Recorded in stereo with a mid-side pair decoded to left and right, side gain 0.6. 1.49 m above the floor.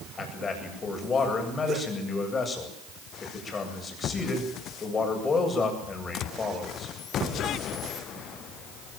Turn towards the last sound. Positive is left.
turn(degrees=30)